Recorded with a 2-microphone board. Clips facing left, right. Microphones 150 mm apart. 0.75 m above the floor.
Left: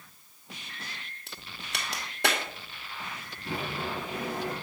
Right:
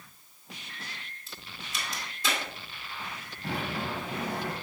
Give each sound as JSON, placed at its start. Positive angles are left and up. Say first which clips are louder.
{"t": 1.3, "sound": "a crack", "louder": "left 2 dB", "side_deg": 70, "distance_m": 2.0}
{"t": 3.4, "sound": "a sliding door", "louder": "right 1 dB", "side_deg": -80, "distance_m": 4.5}